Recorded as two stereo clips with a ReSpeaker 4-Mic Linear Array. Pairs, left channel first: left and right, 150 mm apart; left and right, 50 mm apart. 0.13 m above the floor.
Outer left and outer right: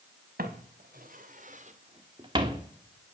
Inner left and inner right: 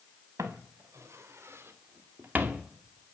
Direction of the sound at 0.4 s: 85° right.